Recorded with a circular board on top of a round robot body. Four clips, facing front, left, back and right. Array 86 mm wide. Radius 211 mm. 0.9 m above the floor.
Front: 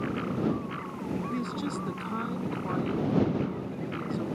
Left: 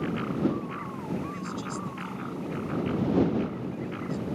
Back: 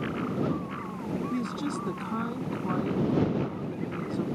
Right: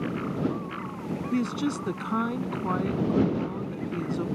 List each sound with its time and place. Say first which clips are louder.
1.3 s a woman speaking: right 7 dB, back 1 dB; 85° right